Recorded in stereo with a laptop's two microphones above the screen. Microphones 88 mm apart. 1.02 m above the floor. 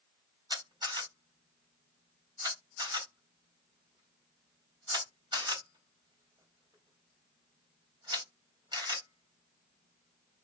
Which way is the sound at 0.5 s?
60° right (ahead or behind).